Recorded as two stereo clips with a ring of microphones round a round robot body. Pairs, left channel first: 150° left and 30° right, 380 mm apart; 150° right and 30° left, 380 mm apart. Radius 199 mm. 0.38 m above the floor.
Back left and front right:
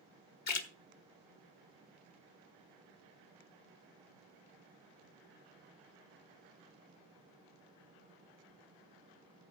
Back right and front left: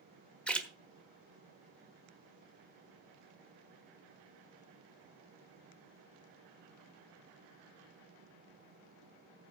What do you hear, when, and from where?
0.5 s a splash: 125° left, 1.3 m